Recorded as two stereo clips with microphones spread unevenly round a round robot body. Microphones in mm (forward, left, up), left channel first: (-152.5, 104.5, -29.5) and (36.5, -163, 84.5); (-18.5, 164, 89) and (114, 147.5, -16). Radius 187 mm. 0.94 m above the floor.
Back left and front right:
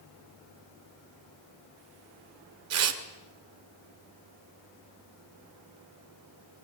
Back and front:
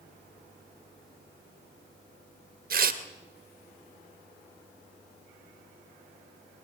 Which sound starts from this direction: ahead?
Tearing paper, at 2.7 s.